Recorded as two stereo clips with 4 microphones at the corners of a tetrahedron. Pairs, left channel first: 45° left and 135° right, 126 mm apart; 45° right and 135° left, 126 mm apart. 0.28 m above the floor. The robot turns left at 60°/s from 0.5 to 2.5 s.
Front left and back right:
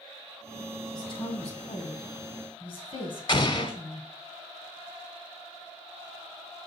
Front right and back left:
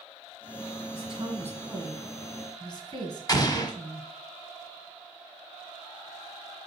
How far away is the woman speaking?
About 2 m.